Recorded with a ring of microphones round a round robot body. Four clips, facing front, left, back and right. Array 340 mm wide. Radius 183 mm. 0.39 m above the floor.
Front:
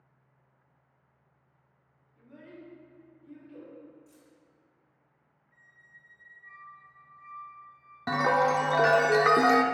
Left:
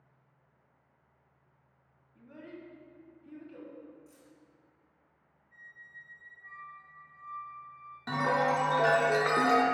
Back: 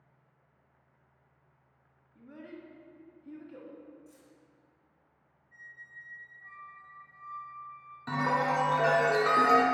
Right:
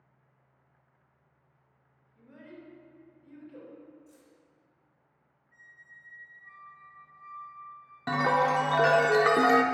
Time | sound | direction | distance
2.1 | a child speaking | 145° left | 1.7 m
4.1 | keys jangling | 105° left | 2.5 m
5.5 | a squeak | 155° left | 1.7 m
8.1 | a chime | 35° right | 0.5 m